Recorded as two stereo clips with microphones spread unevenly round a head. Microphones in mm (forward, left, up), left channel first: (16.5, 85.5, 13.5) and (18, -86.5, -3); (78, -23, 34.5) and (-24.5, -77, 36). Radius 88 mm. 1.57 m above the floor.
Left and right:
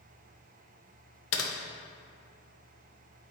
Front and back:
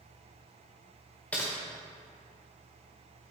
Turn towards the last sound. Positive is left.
turn(degrees=110)